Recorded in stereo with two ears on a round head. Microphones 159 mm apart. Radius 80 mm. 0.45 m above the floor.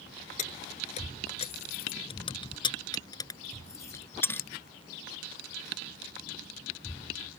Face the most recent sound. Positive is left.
turn(degrees=10)  # may be behind; listen again after turning